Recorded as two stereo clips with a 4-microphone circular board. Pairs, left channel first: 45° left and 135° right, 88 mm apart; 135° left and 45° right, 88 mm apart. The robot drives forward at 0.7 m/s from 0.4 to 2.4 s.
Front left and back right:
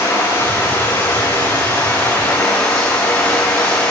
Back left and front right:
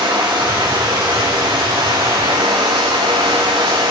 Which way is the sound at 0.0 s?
15° right.